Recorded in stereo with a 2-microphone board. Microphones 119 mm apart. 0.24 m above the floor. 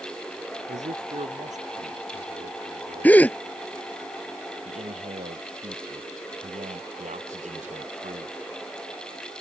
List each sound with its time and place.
0.7 s a man speaking: 75° right (ahead or behind)
3.0 s a gasp: 15° left (ahead or behind)
4.7 s a man speaking: 80° right